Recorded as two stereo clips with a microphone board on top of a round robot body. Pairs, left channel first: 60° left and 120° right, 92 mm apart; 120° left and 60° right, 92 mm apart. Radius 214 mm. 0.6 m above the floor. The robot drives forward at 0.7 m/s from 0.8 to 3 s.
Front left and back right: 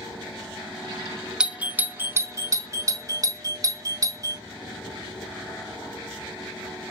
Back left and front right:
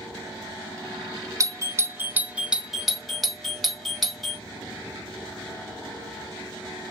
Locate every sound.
1.4 s a doorbell: 45° right, 1.1 m; by 4.4 s 150° right, 1.3 m